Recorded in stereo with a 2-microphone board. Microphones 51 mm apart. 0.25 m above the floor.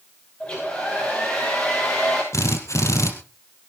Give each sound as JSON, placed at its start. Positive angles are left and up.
{"t": 0.4, "sound": "a hair dryer", "side_deg": 20, "distance_m": 9.5}
{"t": 2.3, "sound": "a drill", "side_deg": 70, "distance_m": 3.0}